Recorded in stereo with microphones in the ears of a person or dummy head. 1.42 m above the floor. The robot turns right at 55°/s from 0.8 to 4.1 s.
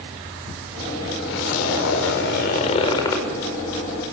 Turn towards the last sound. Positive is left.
turn(degrees=-145)